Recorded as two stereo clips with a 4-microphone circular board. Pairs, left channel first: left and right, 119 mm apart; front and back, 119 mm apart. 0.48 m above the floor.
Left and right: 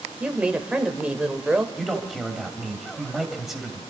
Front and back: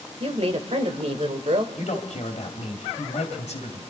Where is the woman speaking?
170° right, 1.7 m.